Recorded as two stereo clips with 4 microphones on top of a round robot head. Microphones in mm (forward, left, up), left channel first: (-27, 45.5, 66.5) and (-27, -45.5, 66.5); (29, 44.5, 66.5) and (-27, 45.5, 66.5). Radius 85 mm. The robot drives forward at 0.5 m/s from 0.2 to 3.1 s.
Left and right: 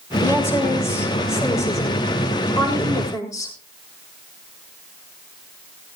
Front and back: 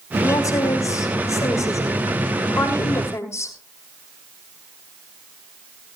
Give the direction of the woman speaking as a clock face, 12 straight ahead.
11 o'clock.